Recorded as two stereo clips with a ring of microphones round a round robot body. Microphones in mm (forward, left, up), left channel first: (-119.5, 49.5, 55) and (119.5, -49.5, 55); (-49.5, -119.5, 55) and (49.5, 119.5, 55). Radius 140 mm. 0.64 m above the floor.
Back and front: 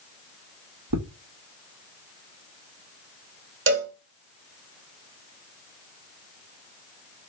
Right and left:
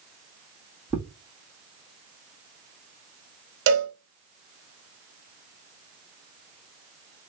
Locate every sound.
0.9 s footsteps: 20° right, 1.6 m
3.7 s a cowbell: 25° left, 1.6 m